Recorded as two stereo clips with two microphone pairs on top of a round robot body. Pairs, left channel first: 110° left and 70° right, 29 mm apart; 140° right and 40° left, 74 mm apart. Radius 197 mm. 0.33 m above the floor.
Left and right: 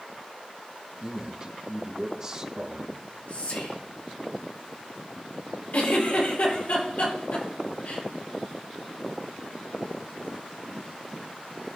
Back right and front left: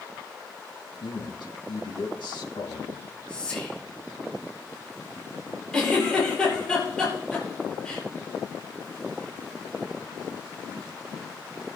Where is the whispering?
145° left, 7.5 m.